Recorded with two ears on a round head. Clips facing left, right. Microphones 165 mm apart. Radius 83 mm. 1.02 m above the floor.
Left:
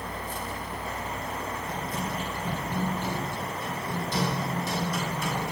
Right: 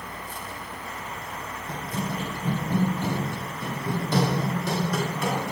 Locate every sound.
1.7 s running footsteps: 25° right (ahead or behind), 1.2 m; by 5.5 s 55° right (ahead or behind), 2.5 m